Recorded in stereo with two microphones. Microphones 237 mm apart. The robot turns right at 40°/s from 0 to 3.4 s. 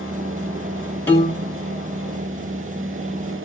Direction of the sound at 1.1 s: 10° left (ahead or behind).